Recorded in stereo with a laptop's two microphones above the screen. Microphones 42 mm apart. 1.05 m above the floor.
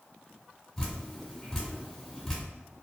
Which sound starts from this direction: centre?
Dripping, at 0.8 s.